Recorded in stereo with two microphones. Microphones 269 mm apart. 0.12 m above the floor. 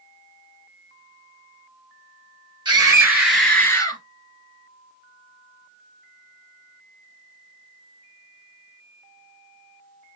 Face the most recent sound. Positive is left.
turn(degrees=15)  # may be behind; listen again after turning